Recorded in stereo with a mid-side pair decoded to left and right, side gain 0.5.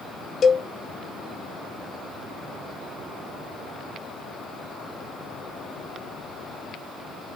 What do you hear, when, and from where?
0.4 s a cowbell: 35° left, 1.0 m